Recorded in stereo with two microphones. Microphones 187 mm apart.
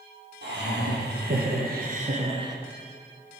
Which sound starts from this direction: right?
Laughter, at 0.4 s.